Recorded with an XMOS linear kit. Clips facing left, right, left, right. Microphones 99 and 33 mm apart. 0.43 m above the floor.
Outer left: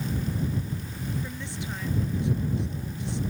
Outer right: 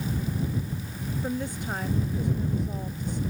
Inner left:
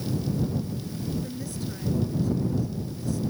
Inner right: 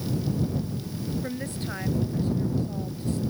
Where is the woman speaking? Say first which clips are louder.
Outer right 6 dB, inner right 2 dB; 45° right (ahead or behind).